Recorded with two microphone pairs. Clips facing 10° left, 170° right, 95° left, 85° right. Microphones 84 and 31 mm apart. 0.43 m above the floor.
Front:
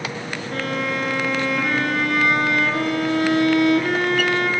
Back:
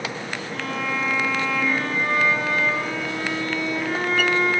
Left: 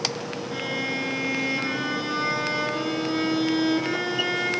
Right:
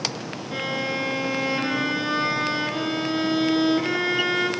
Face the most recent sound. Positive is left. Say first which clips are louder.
# front 3 dB, right 2 dB
turn(degrees=-5)